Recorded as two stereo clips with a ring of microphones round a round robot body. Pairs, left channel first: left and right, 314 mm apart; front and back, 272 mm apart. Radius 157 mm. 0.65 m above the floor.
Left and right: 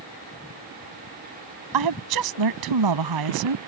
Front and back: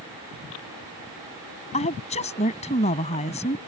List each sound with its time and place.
1.7 s a woman speaking: 70° right